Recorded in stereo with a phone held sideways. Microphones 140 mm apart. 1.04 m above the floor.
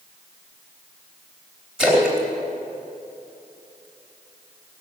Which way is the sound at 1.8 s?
Centre (ahead or behind).